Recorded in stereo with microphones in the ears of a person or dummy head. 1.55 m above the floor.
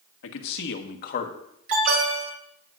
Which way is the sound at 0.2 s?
70° left (ahead or behind).